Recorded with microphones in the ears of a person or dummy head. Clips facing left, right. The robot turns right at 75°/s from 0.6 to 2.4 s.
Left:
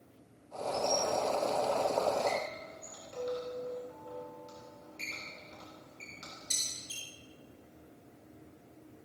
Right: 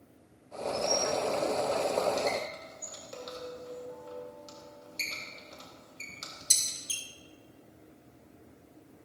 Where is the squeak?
15° left (ahead or behind), 3.5 m; by 7.0 s 65° right (ahead or behind), 3.5 m.